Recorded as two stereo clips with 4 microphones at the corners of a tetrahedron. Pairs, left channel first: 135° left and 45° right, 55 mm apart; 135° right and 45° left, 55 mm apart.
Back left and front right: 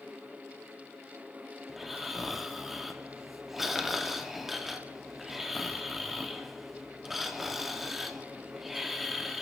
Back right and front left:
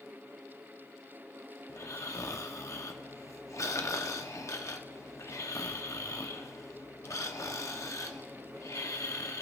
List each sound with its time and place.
1.7 s snoring: 130° right, 0.9 m